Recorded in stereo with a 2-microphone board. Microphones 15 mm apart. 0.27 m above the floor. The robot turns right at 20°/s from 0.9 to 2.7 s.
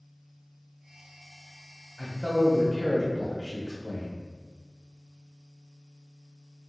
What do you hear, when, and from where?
2.0 s a man speaking: 30° left (ahead or behind), 1.4 m; by 4.1 s 25° left (ahead or behind), 1.4 m